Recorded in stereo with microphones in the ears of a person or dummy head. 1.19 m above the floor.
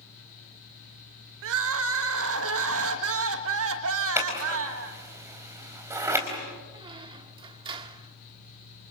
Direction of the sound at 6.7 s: 20° right (ahead or behind).